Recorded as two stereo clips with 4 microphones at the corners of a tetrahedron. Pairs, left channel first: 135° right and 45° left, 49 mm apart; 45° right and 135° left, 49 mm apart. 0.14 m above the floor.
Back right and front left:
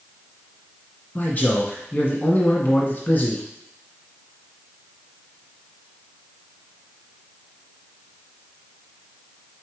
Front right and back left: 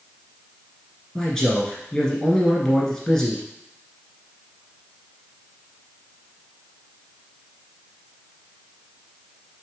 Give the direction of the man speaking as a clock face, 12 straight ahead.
4 o'clock.